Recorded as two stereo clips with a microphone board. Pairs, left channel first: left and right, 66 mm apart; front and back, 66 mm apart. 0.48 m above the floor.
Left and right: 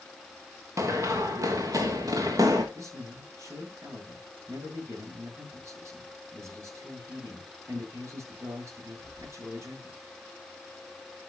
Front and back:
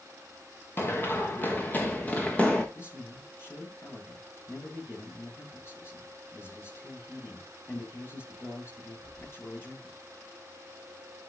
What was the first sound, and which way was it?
Running footsteps, 55° right.